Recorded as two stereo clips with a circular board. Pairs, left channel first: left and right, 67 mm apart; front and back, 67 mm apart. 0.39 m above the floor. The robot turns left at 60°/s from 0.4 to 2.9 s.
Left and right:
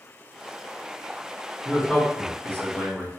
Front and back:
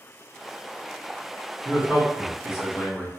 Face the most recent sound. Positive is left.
turn(degrees=100)